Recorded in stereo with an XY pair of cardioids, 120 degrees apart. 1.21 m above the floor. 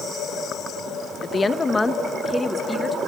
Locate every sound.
1.2 s a woman speaking: 30° left, 0.9 m; by 3.0 s straight ahead, 2.0 m